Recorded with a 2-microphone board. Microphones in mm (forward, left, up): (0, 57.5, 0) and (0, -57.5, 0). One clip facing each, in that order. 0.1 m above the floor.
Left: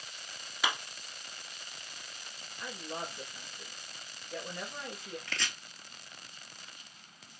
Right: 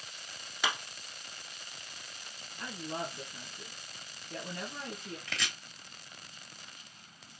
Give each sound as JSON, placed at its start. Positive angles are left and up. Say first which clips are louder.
{"t": 0.6, "sound": "a clap", "louder": "even", "side_deg": 0, "distance_m": 1.5}
{"t": 2.6, "sound": "a woman speaking", "louder": "right 2 dB", "side_deg": -50, "distance_m": 1.6}
{"t": 5.3, "sound": "chopping", "louder": "right 1 dB", "side_deg": 0, "distance_m": 0.6}